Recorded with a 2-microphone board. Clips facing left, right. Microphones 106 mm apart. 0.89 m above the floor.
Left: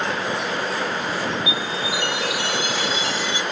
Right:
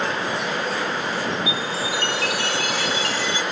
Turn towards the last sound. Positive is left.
turn(degrees=20)  # may be behind; listen again after turning